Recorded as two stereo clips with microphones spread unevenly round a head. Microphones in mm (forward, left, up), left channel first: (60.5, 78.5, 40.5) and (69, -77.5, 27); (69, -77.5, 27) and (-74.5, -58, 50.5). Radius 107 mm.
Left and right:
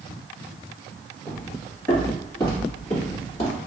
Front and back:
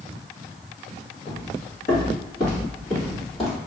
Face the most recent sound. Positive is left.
turn(degrees=70)